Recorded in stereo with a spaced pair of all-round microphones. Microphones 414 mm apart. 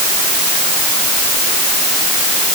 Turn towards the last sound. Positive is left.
No sound to turn to.